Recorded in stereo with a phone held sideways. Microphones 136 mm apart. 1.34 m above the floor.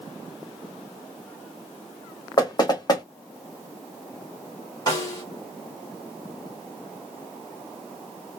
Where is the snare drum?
30° left (ahead or behind), 1.6 m.